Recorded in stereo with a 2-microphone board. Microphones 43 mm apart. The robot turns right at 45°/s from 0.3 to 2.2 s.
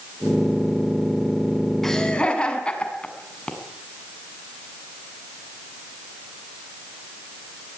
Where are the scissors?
I don't hear scissors.